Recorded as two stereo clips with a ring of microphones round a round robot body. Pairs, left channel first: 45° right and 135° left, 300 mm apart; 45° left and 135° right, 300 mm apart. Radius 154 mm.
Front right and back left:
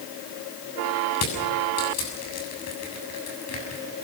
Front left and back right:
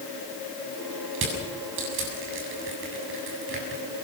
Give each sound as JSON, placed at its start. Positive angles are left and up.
{"t": 1.1, "sound": "crushing", "azimuth_deg": -85, "distance_m": 7.0}